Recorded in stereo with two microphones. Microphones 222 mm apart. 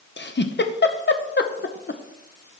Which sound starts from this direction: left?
A giggle, at 0.2 s.